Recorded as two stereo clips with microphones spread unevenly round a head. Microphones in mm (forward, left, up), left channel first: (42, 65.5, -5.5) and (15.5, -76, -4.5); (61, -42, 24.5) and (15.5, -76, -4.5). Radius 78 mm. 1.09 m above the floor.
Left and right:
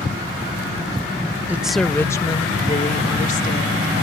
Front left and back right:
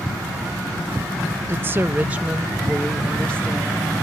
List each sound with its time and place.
1.5 s a woman speaking: straight behind; by 3.9 s 120° left